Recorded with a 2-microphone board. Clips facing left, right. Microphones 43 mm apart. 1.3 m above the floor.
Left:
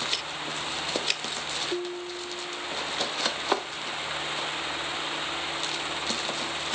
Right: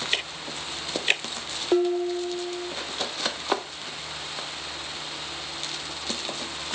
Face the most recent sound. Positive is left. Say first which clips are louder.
# right 10 dB
turn(degrees=-70)  # may be behind; listen again after turning